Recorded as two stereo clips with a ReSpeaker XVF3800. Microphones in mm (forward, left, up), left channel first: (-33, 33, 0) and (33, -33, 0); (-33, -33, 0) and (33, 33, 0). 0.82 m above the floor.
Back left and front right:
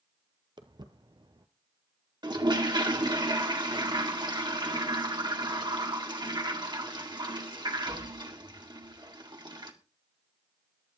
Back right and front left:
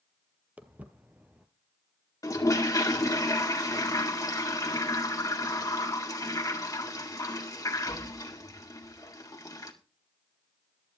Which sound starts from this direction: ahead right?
Footsteps, at 0.6 s.